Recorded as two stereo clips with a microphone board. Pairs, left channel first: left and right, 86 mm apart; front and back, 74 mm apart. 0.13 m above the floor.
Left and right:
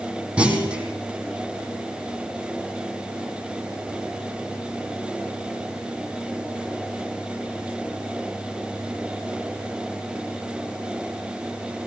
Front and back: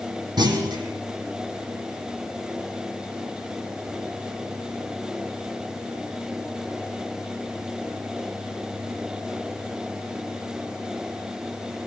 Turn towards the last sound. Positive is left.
turn(degrees=-170)